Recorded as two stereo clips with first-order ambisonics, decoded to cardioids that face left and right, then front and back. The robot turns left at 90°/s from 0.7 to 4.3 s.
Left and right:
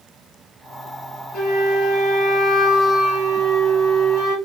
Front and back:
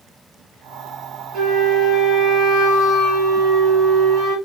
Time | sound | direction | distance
1.3 | a flute | 120° left | 3 m